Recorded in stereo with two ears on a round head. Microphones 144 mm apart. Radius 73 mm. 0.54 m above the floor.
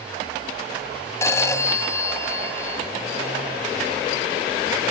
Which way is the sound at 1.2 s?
15° left (ahead or behind).